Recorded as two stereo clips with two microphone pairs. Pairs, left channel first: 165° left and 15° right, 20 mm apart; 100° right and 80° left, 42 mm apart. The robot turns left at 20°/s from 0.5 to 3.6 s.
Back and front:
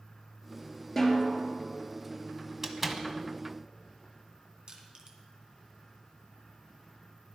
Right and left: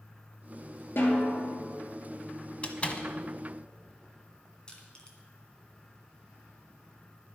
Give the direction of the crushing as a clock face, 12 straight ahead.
1 o'clock.